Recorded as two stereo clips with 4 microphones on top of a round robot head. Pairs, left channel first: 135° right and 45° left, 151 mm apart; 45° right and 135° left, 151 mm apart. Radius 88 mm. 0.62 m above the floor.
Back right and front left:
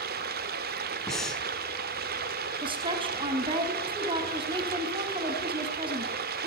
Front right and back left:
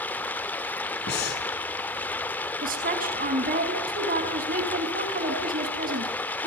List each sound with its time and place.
0.0 s running water: 30° left, 1.0 m
1.1 s breathing: 45° right, 5.5 m
2.6 s a woman speaking: 105° left, 5.5 m